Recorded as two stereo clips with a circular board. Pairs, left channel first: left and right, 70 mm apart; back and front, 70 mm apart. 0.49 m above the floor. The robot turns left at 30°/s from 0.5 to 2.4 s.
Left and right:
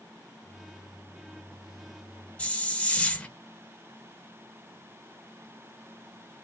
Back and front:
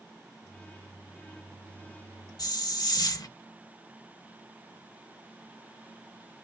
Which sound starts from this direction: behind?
A hiss, at 2.4 s.